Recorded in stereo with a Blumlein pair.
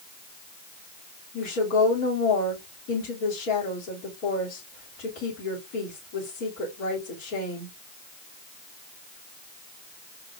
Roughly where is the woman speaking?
Ahead left.